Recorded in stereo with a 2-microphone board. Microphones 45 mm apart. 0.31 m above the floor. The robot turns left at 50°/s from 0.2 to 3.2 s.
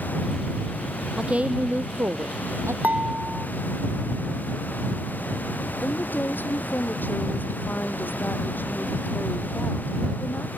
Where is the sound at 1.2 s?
20° right; by 2.7 s 100° right.